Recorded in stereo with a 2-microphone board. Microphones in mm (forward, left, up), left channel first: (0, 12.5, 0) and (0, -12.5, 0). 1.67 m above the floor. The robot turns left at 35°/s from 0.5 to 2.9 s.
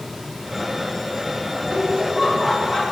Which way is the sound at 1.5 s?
125° right.